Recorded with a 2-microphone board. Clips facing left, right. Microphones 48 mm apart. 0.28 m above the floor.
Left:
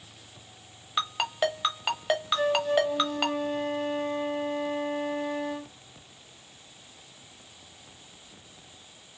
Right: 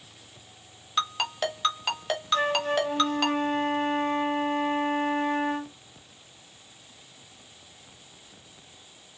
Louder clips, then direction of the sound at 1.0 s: Even; 15° left (ahead or behind).